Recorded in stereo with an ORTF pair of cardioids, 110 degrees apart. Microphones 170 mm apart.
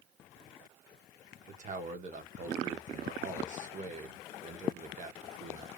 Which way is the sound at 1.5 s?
45° right.